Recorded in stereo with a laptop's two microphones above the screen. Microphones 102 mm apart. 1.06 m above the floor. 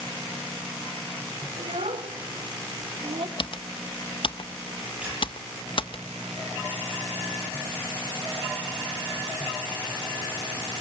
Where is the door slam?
I don't hear a door slam.